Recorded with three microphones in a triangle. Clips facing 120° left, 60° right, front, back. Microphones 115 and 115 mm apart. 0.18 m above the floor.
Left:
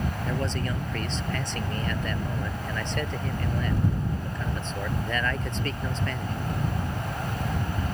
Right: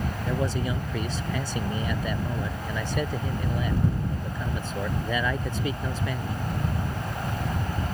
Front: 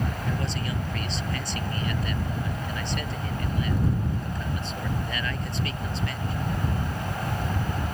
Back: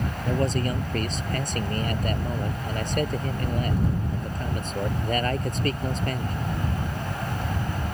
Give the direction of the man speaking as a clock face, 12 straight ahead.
5 o'clock.